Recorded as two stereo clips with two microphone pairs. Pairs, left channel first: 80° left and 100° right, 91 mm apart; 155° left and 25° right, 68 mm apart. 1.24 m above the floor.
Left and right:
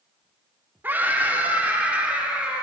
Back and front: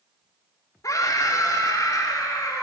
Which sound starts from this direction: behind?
A scream, at 0.8 s.